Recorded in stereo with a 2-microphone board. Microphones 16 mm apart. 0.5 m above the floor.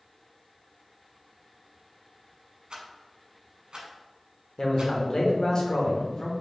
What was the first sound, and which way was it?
A rattle, 80° right.